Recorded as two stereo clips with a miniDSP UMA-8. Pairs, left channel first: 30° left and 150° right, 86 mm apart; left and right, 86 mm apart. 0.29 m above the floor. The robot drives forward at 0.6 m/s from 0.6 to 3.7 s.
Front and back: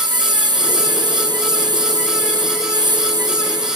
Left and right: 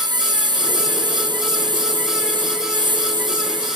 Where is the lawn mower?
125° right; by 3.8 s 120° right.